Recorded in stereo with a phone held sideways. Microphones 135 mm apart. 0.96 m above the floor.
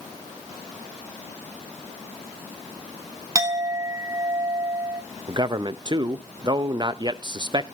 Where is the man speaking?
35° right (ahead or behind), 0.6 m.